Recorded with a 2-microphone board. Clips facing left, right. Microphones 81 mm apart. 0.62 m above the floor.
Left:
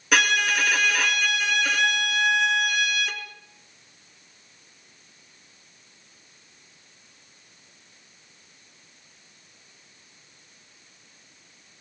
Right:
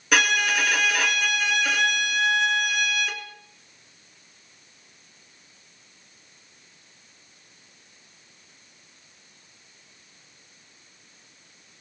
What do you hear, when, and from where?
0.1 s a violin: centre (ahead or behind), 2 m